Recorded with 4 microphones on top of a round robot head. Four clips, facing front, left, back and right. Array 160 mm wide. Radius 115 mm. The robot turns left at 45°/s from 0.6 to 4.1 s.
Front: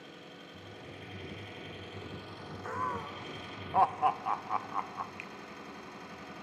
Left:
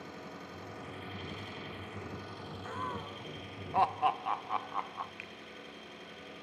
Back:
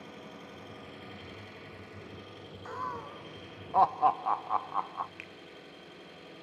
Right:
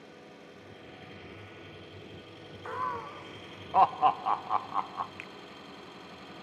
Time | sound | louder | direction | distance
0.0 | an engine running | left 4 dB, back 3 dB | 125° left | 6 m
2.6 | laughter | right 5 dB, front 2 dB | 60° right | 0.9 m
5.2 | a finger snap | right 3 dB, front 3 dB | 110° right | 2 m